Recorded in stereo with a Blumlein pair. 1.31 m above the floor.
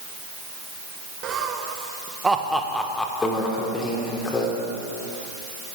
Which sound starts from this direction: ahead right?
Laughter, at 1.2 s.